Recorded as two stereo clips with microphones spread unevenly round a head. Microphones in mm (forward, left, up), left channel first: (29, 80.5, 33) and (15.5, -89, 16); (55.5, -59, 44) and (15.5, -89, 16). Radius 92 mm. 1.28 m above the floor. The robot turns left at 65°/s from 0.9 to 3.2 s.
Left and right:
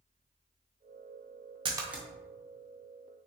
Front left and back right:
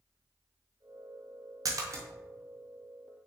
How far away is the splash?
About 0.9 m.